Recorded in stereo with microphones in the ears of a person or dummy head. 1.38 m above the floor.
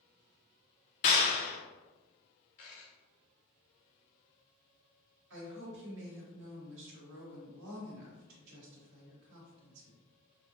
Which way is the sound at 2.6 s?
40° left (ahead or behind).